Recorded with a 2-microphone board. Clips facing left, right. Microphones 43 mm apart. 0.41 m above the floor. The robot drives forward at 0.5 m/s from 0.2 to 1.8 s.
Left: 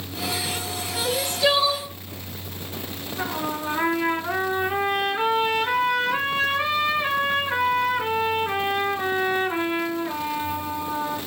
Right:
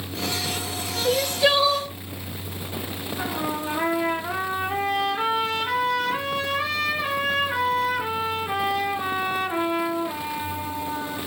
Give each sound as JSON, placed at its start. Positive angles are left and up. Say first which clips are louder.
{"t": 1.1, "sound": "crying", "louder": "right 2 dB", "side_deg": -20, "distance_m": 1.0}
{"t": 3.2, "sound": "a trumpet", "louder": "left 1 dB", "side_deg": 10, "distance_m": 3.0}